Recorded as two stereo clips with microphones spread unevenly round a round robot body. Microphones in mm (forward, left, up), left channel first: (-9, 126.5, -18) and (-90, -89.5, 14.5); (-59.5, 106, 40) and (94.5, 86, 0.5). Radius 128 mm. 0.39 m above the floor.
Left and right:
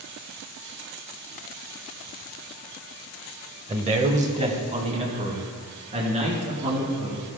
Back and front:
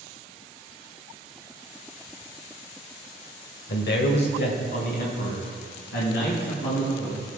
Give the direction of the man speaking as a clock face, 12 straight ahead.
6 o'clock.